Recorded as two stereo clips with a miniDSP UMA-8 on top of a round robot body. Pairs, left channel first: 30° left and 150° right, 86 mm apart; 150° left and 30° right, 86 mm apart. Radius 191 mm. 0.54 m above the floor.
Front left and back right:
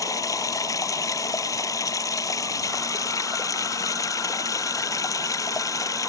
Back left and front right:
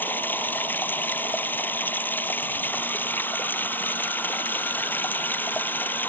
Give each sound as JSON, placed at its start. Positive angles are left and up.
{"t": 0.0, "sound": "running water", "azimuth_deg": 80}